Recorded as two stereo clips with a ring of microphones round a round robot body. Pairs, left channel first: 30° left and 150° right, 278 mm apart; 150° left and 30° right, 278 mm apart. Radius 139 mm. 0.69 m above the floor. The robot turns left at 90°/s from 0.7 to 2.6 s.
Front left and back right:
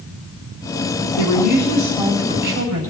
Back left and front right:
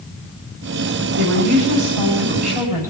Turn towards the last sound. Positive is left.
turn(degrees=-110)